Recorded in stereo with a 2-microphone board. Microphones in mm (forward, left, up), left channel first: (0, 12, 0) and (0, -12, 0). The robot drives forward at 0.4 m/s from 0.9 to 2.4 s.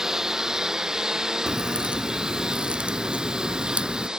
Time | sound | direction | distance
0.0 | a lawn mower | 20° right (ahead or behind) | ?
1.5 | a crack | 85° right | ?